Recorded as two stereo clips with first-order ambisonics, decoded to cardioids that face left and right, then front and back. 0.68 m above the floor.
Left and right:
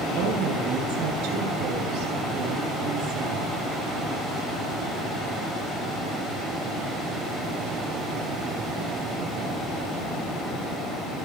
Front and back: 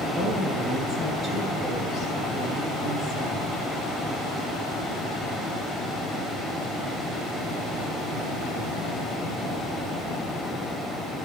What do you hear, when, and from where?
0.1 s a woman speaking: 110° right, 9.5 m